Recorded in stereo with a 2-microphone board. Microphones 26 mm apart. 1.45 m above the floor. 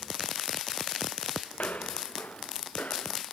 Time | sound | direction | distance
1.5 | footsteps | 70° left (ahead or behind) | ?